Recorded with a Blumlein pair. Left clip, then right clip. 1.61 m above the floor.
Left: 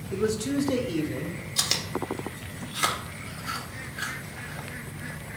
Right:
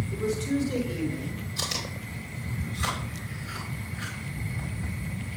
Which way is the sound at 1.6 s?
60° left.